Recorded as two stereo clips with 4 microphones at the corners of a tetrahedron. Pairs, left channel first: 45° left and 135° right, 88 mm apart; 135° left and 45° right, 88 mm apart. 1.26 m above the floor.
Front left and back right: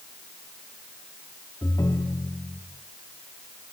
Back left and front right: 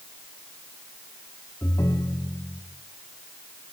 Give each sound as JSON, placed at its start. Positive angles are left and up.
{"t": 1.6, "sound": "a ringtone", "azimuth_deg": 85, "distance_m": 1.4}